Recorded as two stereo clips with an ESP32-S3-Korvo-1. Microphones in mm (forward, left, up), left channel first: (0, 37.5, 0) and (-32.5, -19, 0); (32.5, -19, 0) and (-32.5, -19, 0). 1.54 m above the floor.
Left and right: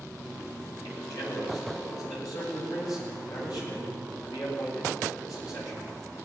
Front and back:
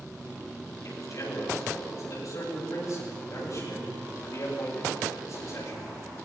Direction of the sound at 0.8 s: 35° left.